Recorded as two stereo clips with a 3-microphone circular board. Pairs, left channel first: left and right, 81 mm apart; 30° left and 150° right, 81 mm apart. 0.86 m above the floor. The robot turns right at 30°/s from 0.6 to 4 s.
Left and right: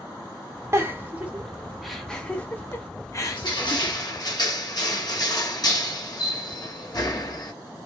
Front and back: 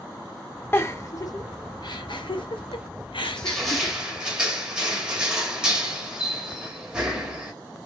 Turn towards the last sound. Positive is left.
turn(degrees=130)